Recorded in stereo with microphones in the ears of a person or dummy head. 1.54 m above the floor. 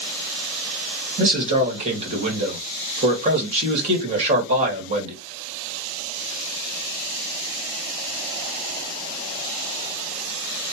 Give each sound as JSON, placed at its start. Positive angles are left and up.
{"t": 1.2, "sound": "a man speaking", "side_deg": -35, "distance_m": 2.0}